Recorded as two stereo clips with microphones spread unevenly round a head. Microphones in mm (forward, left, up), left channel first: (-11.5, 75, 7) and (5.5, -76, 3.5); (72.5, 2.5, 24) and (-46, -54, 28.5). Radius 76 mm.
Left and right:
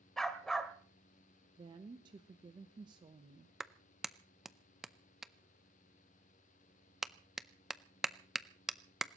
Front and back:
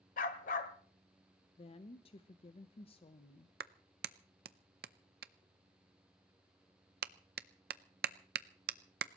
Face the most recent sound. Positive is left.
turn(degrees=-170)